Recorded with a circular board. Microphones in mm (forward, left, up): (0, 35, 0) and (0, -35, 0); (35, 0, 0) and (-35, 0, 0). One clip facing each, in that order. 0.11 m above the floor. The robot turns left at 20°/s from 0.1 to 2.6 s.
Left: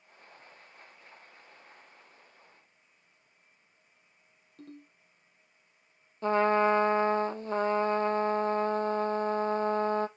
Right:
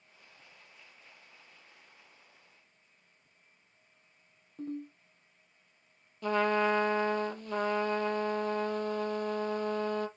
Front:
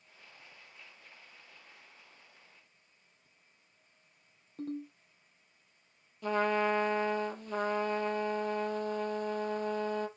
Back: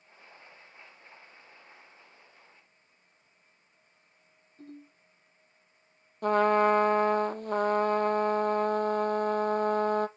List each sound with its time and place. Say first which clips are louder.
4.6 s a ringtone: right 10 dB, front 9 dB; 15° right, 2 m
6.2 s a trumpet: left 3 dB, back 7 dB; 145° left, 0.7 m